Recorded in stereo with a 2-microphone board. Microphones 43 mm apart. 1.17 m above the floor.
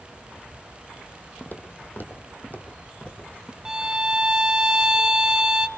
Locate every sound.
1.4 s footsteps: 55° left (ahead or behind), 2 m; by 3.5 s 30° left (ahead or behind), 4 m
3.6 s a violin: 15° right (ahead or behind), 0.7 m